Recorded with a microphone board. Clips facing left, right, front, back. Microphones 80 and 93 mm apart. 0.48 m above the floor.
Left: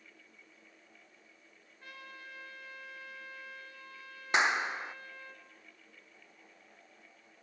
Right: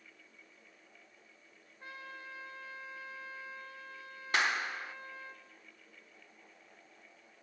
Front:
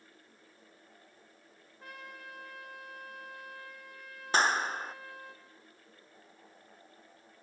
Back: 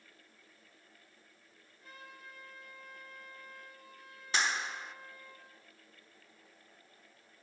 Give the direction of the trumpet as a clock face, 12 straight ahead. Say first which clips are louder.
Right 2 dB, front 5 dB; 1 o'clock.